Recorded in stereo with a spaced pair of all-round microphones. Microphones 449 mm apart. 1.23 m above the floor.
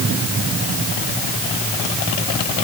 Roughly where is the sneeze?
No sneeze in this recording.